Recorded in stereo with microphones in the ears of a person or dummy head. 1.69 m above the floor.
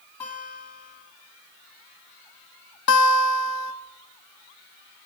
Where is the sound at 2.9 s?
80° left, 0.7 m.